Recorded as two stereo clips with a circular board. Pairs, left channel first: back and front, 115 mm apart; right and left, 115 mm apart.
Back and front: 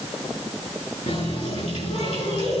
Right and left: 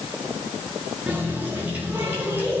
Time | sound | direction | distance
1.1 | a running tap | 165° left | 8 m